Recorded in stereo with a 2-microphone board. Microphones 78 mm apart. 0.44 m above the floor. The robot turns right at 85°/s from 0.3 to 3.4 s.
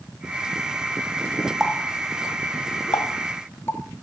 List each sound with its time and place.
1.6 s a running tap: 5° right (ahead or behind), 1.6 m; by 3.8 s 30° left (ahead or behind), 1.6 m